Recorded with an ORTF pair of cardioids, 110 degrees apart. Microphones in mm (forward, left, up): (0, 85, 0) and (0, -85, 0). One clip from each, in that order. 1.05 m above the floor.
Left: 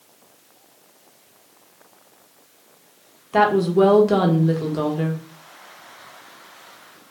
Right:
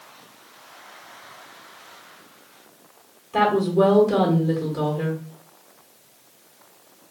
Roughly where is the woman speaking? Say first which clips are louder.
Left 2 dB; ahead left.